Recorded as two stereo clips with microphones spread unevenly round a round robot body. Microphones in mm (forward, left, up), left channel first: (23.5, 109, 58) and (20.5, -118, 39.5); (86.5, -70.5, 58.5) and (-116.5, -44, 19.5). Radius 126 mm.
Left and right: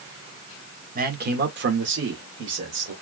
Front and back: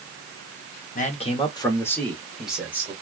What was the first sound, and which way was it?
A man speaking, 60° right.